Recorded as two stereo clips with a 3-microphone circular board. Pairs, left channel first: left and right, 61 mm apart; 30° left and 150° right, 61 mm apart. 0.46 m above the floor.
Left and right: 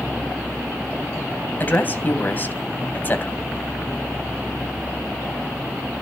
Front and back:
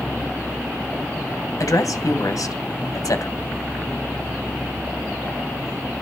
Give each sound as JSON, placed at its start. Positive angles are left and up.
{"t": 1.6, "sound": "a woman speaking", "azimuth_deg": 35, "distance_m": 2.5}